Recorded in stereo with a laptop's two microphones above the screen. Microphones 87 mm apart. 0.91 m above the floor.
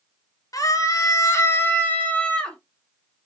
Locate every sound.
0.5 s a scream: 45° left (ahead or behind), 1.1 m; by 2.6 s 10° left (ahead or behind), 1.1 m